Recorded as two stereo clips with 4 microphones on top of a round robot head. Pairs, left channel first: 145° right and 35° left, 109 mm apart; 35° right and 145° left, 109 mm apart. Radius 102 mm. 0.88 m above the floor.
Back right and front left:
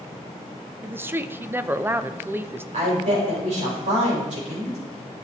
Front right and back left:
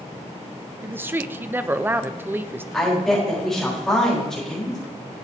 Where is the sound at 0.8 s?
90° left, 0.7 m.